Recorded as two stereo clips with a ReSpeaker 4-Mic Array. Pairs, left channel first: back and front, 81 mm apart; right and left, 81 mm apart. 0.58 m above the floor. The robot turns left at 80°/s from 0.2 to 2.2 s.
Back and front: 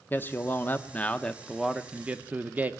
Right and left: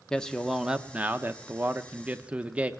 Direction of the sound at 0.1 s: 160° right.